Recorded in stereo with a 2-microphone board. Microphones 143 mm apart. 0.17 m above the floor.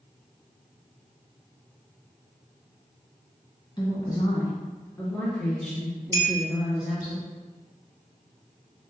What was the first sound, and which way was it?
A woman speaking, 30° left (ahead or behind).